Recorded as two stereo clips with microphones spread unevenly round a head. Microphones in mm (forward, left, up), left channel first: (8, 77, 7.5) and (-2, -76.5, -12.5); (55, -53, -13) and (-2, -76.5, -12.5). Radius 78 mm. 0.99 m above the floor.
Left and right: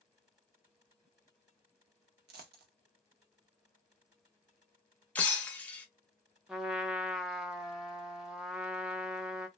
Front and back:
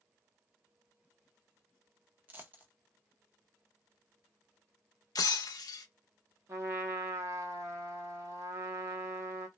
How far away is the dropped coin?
About 0.7 m.